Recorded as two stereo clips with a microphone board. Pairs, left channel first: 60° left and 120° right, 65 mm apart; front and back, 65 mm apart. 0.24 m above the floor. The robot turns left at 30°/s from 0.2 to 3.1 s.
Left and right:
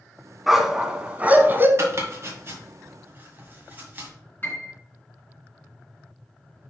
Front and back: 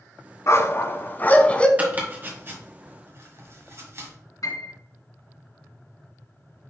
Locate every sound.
0.5 s a dog barking: 35° right, 0.9 m; by 1.7 s 70° right, 0.9 m
1.8 s chopping: 125° right, 1.9 m; by 4.1 s 165° right, 1.9 m
4.4 s a piano: 5° left, 3 m